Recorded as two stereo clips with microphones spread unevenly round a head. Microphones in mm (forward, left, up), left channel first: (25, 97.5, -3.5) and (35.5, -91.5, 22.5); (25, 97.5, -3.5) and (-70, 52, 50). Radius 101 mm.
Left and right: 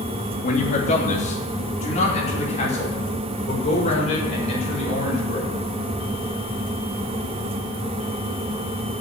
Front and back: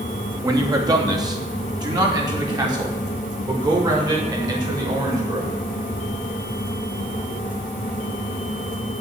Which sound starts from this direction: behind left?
A man speaking, at 0.4 s.